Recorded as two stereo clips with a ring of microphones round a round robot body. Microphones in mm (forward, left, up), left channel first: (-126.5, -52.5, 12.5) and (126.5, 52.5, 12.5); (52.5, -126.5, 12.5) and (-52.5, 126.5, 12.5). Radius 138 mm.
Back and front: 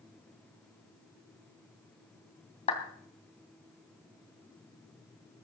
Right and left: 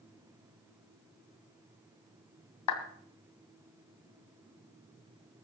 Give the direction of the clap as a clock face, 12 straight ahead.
3 o'clock.